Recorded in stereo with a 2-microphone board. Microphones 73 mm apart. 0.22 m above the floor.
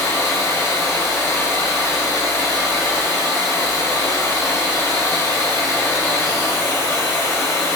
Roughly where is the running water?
Left.